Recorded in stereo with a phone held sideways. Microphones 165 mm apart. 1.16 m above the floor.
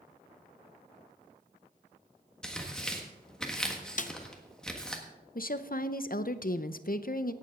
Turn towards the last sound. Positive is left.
turn(degrees=60)  # may be behind; listen again after turning